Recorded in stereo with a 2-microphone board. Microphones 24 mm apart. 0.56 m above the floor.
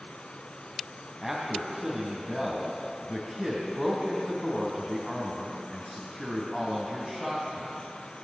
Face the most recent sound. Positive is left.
turn(degrees=5)  # may be behind; listen again after turning